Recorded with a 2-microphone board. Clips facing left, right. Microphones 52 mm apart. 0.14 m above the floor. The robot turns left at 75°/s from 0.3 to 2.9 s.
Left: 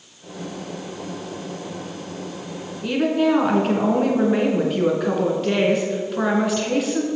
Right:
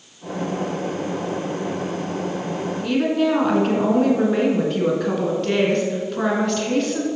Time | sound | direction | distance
2.8 | a woman speaking | 10° left (ahead or behind) | 1.9 m